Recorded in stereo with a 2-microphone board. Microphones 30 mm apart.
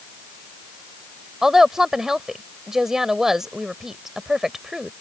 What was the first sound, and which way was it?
A woman speaking, 15° right (ahead or behind).